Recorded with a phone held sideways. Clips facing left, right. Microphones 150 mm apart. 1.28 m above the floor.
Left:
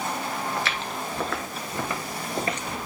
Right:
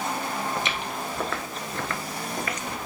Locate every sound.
0.6 s footsteps: 20° right (ahead or behind), 1.3 m; by 2.7 s 35° left (ahead or behind), 1.5 m